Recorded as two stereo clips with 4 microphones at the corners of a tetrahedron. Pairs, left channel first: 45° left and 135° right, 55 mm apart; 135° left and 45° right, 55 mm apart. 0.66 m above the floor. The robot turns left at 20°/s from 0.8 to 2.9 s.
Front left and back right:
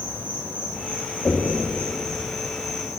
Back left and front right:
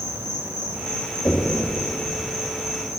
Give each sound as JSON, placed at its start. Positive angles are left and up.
{"t": 0.0, "sound": "an insect", "azimuth_deg": -10, "distance_m": 1.9}
{"t": 1.2, "sound": "knocking", "azimuth_deg": 90, "distance_m": 2.5}